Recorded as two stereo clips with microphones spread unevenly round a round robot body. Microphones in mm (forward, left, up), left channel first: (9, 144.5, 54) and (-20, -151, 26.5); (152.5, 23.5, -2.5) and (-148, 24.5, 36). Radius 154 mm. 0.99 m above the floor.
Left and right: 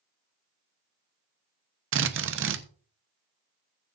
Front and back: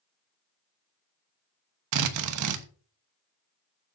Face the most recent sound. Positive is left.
turn(degrees=-145)